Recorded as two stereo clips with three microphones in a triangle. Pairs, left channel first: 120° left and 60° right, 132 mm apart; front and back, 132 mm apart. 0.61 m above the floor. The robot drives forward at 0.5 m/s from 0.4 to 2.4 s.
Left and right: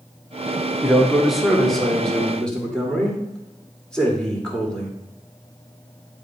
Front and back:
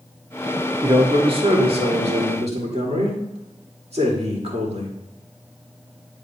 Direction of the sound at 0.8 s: 140° right.